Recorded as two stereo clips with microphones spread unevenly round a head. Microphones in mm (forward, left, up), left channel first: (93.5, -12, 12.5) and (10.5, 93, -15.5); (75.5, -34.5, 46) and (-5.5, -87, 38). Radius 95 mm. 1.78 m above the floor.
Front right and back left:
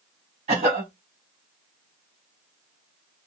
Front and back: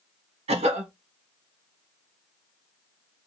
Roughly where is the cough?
Behind.